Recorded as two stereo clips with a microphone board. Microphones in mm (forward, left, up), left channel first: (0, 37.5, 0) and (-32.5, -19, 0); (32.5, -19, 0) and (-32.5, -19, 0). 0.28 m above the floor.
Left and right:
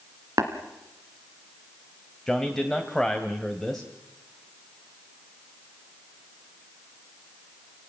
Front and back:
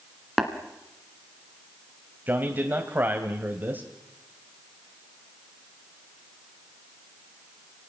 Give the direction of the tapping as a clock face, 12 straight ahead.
3 o'clock.